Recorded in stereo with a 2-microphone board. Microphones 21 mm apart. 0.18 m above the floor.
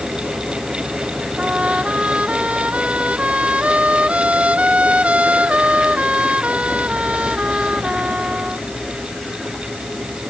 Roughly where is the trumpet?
Right.